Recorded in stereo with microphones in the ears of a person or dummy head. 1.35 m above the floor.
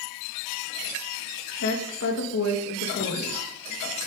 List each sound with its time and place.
1.5 s a woman speaking: 60° left (ahead or behind), 1.7 m